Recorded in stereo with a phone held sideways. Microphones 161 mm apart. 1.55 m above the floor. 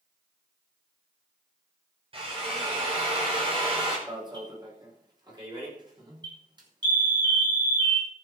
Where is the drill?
40° right (ahead or behind), 6 m.